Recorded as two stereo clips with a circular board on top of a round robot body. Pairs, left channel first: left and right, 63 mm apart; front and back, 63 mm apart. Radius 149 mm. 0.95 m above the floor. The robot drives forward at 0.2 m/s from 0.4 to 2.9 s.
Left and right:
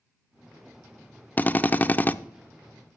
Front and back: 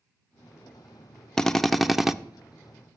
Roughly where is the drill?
Left.